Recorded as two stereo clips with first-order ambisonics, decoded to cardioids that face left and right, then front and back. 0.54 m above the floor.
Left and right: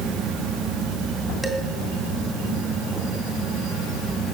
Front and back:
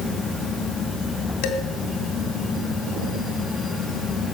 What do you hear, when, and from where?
1.4 s dishes clattering: straight ahead, 3 m